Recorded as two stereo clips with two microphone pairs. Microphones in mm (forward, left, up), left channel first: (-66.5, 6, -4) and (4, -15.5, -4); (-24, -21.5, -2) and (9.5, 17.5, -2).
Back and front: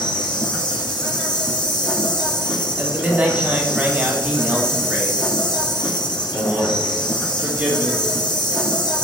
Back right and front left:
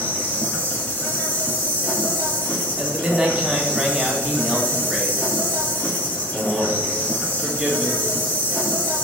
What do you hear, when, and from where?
0.0 s an insect: 170° left, 1.0 m
2.8 s a man speaking: straight ahead, 0.9 m